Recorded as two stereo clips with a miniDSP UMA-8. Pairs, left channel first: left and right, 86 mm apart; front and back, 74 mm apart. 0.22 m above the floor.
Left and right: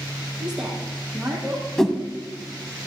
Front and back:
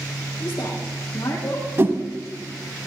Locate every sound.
0.4 s a woman speaking: 5° right, 7 m
1.8 s a whoosh: 170° left, 1.3 m